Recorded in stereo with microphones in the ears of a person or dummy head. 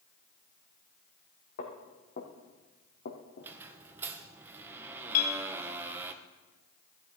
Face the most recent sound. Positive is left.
turn(degrees=50)  # may be behind; listen again after turning